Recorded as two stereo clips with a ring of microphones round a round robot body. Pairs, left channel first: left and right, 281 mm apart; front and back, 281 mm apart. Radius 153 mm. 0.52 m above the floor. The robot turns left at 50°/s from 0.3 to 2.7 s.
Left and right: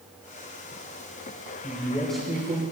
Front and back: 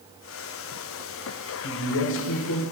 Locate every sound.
1.6 s a man speaking: 25° left, 2 m; by 2.6 s 25° right, 2 m